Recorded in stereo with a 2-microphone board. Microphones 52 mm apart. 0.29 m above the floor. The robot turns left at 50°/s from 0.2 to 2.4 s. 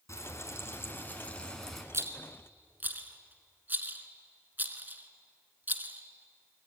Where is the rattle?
60° right (ahead or behind), 1.6 m; by 6.7 s 35° right (ahead or behind), 1.6 m.